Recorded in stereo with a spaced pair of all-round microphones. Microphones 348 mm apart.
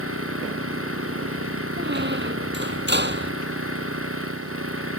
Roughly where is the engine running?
Right.